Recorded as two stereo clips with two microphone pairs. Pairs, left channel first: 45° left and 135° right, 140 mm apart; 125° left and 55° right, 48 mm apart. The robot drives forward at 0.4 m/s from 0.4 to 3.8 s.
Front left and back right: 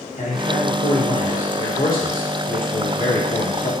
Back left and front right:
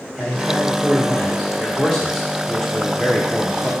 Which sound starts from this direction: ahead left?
A man speaking, at 0.2 s.